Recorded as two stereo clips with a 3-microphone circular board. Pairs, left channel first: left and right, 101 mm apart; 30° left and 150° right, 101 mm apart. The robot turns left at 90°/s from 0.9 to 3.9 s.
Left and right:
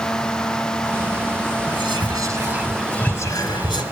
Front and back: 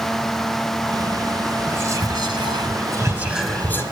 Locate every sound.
1.7 s whispering: 80° right, 1.6 m; by 3.8 s 85° left, 1.6 m